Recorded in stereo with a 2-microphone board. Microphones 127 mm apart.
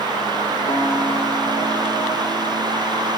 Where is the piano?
40° left (ahead or behind), 9.5 m.